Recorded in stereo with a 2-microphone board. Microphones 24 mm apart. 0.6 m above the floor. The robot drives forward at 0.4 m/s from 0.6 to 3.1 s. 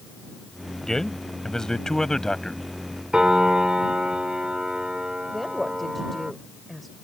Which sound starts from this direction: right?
A piano, at 3.1 s.